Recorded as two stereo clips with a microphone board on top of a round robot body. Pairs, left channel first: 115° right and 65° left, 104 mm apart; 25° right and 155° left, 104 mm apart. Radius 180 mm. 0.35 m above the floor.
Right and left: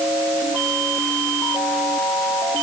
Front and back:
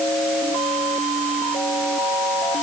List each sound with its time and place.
Only background noise.